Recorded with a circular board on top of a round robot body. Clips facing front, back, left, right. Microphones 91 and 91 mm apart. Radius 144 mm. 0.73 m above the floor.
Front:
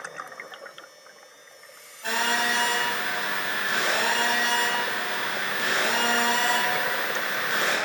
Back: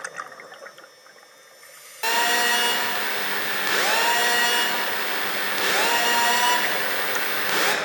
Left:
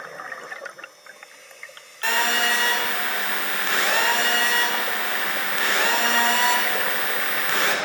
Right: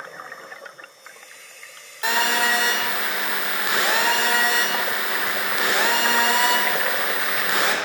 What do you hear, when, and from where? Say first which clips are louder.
2.0 s a phone buzzing: back 3 dB, right 1 dB; 165° right, 1.8 m